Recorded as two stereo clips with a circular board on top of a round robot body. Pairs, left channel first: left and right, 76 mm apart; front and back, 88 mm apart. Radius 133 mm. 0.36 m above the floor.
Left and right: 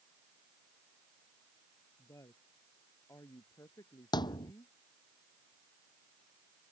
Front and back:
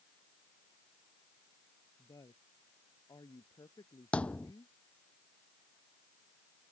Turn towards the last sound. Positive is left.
turn(degrees=75)